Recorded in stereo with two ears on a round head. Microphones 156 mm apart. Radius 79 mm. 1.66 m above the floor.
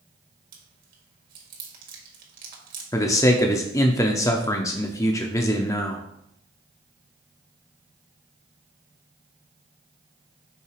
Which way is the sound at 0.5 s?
55° right (ahead or behind).